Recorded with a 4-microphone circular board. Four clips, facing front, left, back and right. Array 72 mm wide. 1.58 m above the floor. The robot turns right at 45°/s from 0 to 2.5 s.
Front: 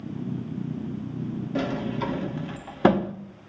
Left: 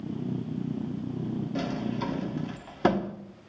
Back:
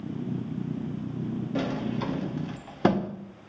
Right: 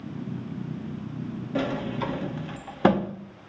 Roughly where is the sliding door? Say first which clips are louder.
Right 6 dB, front 3 dB; right.